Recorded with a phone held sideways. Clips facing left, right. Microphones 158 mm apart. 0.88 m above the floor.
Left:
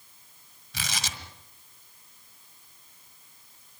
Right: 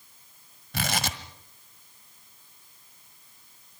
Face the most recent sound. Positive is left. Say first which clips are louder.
# right 7 dB
turn(degrees=-60)  # may be behind; listen again after turning